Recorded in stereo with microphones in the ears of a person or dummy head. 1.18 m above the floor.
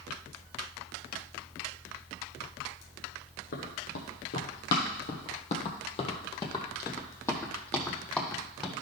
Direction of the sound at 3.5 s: 55° left (ahead or behind).